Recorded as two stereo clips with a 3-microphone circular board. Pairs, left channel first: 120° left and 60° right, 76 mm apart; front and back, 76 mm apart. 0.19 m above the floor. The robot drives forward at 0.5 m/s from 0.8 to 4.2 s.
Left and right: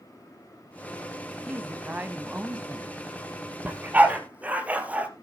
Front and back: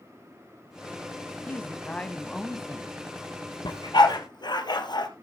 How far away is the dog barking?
About 2 m.